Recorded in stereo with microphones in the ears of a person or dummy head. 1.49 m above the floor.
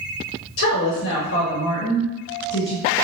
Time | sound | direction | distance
0.6 | a woman speaking | 75° left (ahead or behind) | 1.0 m